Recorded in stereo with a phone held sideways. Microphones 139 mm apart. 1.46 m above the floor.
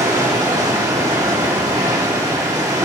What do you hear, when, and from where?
0.0 s running water: 25° right (ahead or behind), 3 m